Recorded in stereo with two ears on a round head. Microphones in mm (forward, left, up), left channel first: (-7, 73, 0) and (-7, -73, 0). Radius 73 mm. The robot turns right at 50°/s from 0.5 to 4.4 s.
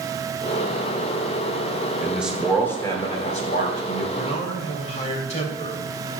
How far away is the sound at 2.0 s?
About 2 m.